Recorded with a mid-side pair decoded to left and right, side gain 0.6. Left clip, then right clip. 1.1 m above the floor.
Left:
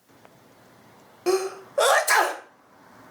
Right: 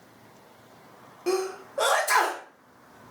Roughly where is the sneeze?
Ahead left.